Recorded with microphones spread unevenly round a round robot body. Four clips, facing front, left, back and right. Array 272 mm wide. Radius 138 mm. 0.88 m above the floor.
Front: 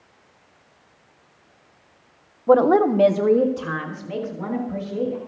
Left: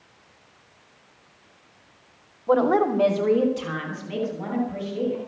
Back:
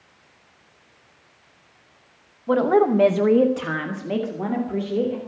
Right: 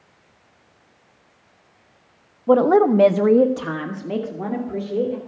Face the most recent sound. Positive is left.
turn(degrees=-145)